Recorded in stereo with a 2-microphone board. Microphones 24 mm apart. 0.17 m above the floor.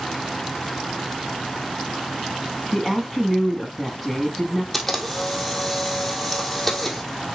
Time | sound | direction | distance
2.7 | a woman speaking | 5° left (ahead or behind) | 1.4 m
4.7 | a camera shutter | 10° left (ahead or behind) | 1.6 m